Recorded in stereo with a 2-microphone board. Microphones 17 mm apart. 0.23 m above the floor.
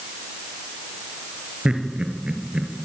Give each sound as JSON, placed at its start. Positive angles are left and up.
{"t": 1.6, "sound": "laughter", "side_deg": -70, "distance_m": 4.5}